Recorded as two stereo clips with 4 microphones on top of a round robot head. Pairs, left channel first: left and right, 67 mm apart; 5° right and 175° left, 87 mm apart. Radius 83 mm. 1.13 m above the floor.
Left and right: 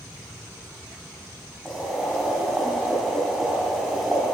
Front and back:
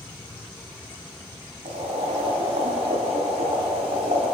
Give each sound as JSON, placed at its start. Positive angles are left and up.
{"t": 1.6, "sound": "boiling", "azimuth_deg": 180, "distance_m": 3.0}